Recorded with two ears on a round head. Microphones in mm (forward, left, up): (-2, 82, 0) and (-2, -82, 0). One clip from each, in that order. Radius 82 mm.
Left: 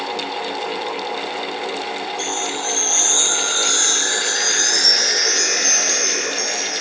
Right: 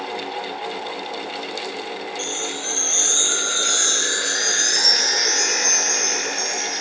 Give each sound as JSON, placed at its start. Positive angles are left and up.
{"t": 2.2, "sound": "a chime", "side_deg": 5}